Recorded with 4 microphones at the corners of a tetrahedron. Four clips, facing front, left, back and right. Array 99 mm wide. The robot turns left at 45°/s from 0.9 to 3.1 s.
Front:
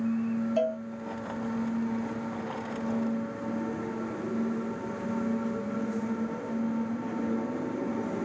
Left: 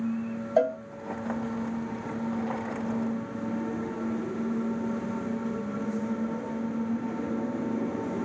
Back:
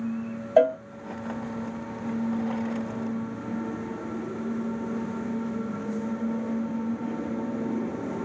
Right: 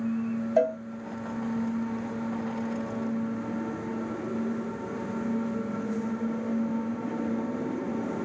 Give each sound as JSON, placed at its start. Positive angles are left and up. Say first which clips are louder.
{"t": 0.6, "sound": "a cowbell", "louder": "even, back 11 dB", "azimuth_deg": 170, "distance_m": 0.5}